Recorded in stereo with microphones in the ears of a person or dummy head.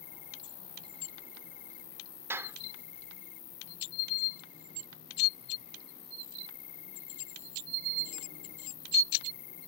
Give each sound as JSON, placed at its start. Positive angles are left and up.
{"t": 0.0, "sound": "an insect", "side_deg": 45}
{"t": 2.3, "sound": "a clap", "side_deg": -15}